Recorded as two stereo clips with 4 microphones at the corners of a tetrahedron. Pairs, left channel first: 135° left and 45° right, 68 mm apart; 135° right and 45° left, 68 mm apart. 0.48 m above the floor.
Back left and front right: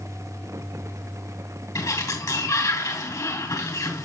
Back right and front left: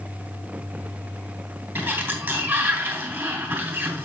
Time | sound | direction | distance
1.8 | a sliding door | 110° left | 2.5 m